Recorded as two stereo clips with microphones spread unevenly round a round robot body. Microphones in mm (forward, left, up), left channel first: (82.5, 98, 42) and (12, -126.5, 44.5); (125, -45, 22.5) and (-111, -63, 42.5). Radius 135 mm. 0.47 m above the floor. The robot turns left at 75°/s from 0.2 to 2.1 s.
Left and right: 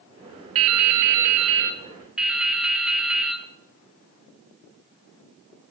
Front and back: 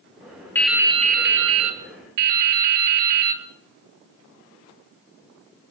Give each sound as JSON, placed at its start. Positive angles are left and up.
{"t": 0.6, "sound": "dripping", "azimuth_deg": -80, "distance_m": 1.5}